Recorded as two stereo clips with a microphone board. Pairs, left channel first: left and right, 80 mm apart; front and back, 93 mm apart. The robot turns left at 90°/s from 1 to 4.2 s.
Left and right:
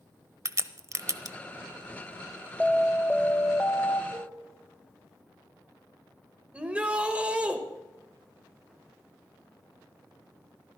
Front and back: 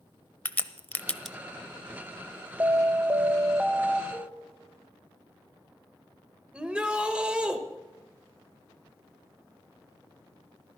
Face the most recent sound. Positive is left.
turn(degrees=-120)